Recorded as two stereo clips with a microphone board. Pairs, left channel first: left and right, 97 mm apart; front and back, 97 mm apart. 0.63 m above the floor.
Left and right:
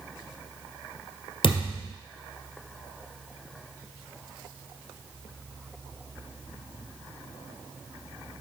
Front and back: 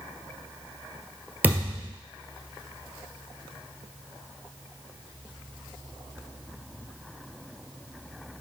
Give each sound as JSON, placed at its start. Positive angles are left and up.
{"t": 1.4, "sound": "a thud", "azimuth_deg": 110, "distance_m": 1.6}